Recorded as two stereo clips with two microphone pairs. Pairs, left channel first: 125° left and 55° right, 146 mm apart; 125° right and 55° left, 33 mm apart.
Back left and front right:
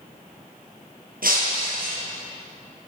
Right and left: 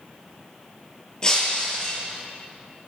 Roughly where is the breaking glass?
Ahead right.